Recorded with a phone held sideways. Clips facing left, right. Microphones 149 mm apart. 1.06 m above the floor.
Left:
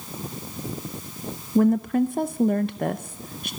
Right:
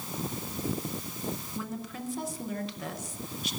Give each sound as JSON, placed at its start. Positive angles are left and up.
{"t": 1.6, "sound": "a woman speaking", "side_deg": 55, "distance_m": 0.7}